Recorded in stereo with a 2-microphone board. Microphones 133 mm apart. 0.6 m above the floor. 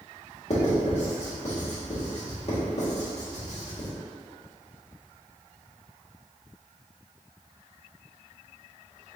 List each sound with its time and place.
0.5 s writing: 55° left (ahead or behind), 1.3 m